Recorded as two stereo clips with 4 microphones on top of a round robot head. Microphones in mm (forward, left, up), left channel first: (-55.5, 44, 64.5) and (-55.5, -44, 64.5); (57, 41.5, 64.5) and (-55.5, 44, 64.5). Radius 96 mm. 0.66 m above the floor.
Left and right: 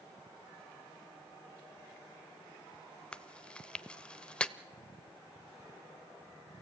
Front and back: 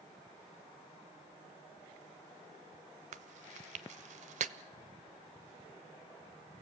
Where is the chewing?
170° left, 0.9 m.